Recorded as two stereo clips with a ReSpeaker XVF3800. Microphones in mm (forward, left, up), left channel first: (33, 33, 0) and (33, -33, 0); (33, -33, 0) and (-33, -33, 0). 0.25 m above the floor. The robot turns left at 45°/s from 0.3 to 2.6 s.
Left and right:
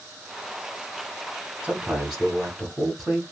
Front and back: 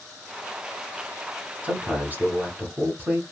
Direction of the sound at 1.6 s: 150° right.